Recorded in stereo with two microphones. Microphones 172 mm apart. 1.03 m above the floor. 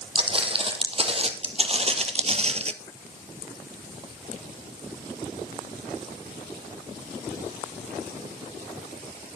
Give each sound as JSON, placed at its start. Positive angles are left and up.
{"t": 0.1, "sound": "footsteps", "side_deg": -35, "distance_m": 2.0}